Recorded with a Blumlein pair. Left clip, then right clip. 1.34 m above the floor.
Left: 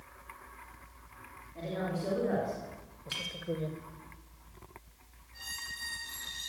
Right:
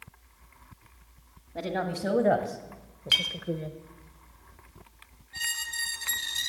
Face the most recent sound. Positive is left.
turn(degrees=-55)